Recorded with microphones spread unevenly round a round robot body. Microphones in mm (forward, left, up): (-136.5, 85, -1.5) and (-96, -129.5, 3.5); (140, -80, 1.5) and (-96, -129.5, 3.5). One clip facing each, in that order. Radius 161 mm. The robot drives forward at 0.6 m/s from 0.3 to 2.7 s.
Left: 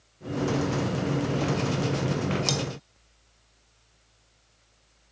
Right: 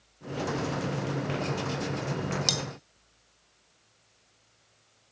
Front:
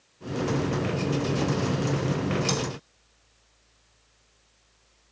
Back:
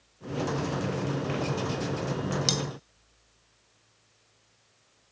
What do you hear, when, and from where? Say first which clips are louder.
2.5 s cutlery clinking: left 5 dB, front 3 dB; 150° right, 0.8 m; by 2.6 s 155° right, 0.9 m